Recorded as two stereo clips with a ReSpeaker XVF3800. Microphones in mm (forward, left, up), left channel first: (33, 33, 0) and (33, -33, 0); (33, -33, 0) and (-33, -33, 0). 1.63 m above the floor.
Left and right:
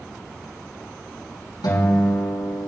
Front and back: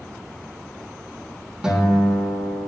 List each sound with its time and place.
1.6 s a guitar: 100° left, 5 m